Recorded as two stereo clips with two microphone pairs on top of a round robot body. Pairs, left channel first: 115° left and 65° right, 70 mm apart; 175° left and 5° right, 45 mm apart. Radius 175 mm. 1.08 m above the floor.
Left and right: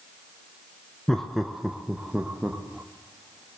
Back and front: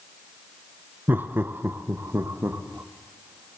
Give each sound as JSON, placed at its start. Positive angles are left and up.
{"t": 1.1, "sound": "laughter", "azimuth_deg": 30, "distance_m": 1.6}